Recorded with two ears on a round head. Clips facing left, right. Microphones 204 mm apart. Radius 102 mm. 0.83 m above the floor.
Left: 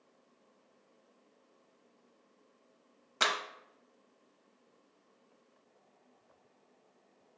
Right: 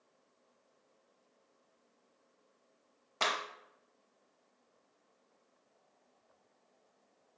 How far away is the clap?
About 0.7 m.